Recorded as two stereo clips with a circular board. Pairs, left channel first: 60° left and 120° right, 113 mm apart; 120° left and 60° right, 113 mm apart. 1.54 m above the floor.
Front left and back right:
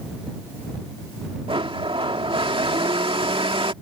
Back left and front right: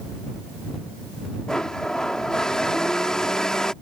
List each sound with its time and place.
1.5 s a blender: 155° right